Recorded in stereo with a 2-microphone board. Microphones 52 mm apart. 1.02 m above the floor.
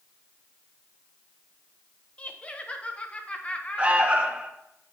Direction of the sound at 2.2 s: 25° left (ahead or behind).